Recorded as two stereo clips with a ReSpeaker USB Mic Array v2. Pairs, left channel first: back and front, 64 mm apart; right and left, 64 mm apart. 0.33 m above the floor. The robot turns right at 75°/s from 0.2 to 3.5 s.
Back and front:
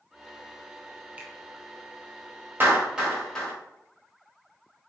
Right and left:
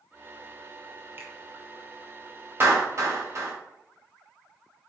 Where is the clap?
50° left, 1.6 m; by 3.5 s 115° left, 1.6 m.